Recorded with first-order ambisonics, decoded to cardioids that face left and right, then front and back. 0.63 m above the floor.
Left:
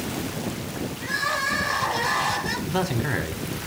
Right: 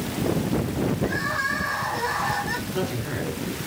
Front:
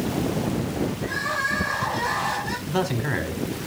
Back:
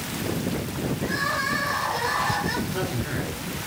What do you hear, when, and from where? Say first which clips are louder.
1.0 s crying: left 3 dB, back 1 dB; 100° left, 6 m
2.7 s a man speaking: left 3 dB, front 4 dB; 45° left, 2 m